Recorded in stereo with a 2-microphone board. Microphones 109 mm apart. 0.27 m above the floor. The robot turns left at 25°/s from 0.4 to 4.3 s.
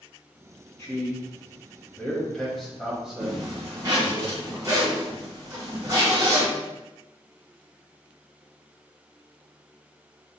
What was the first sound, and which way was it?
A man speaking, 25° left (ahead or behind).